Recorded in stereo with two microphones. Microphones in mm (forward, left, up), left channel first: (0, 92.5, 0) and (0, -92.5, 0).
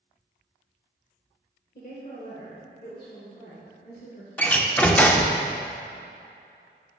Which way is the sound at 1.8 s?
55° left (ahead or behind).